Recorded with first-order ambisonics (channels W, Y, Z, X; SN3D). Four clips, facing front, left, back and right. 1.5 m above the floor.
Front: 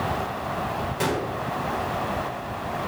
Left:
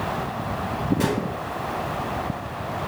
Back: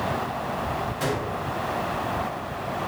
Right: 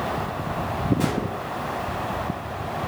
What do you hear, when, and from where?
1.0 s a gunshot: 15° left, 5 m